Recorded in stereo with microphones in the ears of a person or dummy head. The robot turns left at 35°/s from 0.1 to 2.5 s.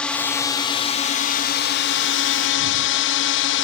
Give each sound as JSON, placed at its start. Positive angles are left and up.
{"t": 0.0, "sound": "a drone", "azimuth_deg": 170}